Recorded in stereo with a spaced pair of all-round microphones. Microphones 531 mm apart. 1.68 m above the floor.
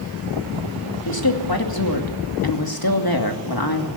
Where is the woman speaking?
40° left (ahead or behind), 2.5 m.